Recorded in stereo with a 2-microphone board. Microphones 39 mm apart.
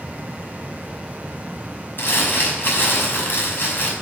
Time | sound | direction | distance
2.0 | crumpling | 60° left (ahead or behind) | 5.5 m